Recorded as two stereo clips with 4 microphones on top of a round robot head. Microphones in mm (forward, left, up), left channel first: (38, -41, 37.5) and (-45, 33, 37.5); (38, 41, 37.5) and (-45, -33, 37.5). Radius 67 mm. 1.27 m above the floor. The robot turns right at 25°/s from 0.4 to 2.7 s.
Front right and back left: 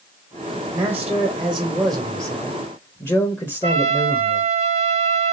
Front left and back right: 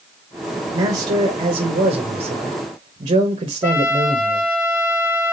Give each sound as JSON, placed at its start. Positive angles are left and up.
{"t": 0.7, "sound": "a man speaking", "azimuth_deg": -155, "distance_m": 1.0}
{"t": 3.6, "sound": "a trumpet", "azimuth_deg": 110, "distance_m": 1.1}